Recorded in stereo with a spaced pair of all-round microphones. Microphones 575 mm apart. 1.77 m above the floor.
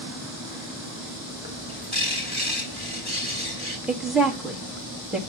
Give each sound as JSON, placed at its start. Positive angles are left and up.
{"t": 1.4, "sound": "a bird", "side_deg": -10, "distance_m": 3.5}
{"t": 3.9, "sound": "a woman speaking", "side_deg": 0, "distance_m": 2.5}